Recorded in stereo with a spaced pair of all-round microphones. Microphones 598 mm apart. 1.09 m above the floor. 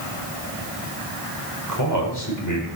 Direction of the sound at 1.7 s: 30° left (ahead or behind).